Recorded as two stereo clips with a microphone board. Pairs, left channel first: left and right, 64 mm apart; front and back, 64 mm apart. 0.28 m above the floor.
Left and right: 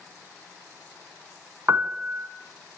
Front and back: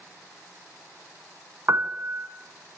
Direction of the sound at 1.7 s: 135° right.